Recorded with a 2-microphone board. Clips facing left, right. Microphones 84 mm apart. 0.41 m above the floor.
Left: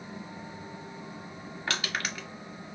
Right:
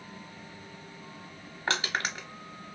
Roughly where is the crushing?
Right.